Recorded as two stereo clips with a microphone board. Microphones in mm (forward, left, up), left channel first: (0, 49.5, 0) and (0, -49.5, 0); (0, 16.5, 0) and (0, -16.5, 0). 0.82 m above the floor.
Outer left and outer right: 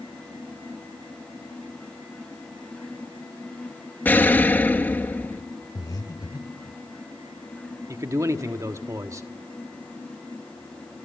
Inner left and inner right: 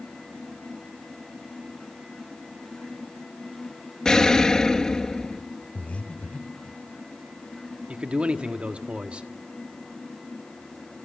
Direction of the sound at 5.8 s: 40° left (ahead or behind).